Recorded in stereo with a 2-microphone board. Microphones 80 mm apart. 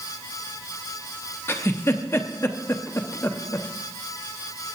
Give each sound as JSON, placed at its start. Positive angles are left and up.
{"t": 1.5, "sound": "a giggle", "side_deg": 30, "distance_m": 0.6}